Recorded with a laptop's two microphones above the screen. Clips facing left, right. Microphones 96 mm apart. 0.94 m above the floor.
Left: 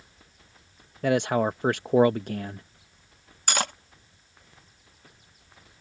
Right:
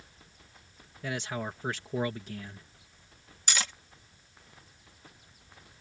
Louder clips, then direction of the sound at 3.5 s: Left 7 dB; 50° left (ahead or behind).